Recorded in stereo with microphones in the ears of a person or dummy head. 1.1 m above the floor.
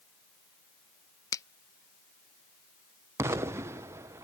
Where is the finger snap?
15° left (ahead or behind).